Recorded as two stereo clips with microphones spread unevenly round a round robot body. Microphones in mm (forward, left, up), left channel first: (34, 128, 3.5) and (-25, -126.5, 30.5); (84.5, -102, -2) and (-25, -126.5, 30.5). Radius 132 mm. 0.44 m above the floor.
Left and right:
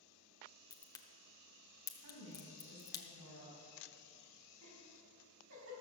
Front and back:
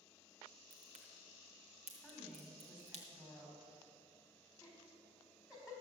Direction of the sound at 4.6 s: 80° right.